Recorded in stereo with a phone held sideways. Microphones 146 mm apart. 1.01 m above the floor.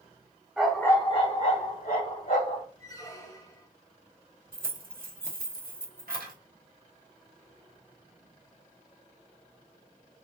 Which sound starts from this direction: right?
Keys jangling, at 4.5 s.